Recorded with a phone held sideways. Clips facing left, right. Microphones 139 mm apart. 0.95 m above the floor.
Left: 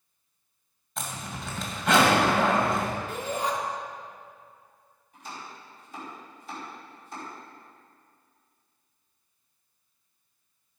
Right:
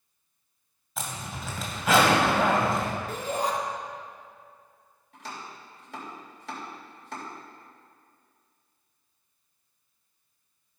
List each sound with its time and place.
1.0 s a zipper: 5° right (ahead or behind), 2 m
3.1 s a shout: 40° right (ahead or behind), 2.5 m
5.1 s chopping: 85° right, 3.5 m